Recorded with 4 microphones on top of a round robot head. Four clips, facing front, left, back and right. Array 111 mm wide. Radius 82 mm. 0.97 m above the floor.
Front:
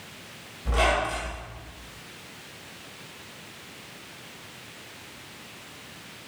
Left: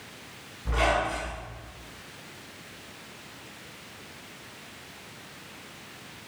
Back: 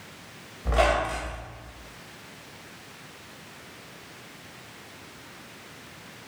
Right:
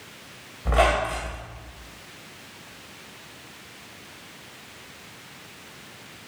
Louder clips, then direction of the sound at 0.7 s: Right 4 dB, back 1 dB; 115° right.